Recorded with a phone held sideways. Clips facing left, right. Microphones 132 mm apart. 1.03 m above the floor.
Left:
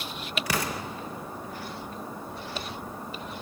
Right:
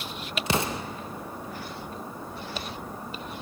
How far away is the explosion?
About 0.7 m.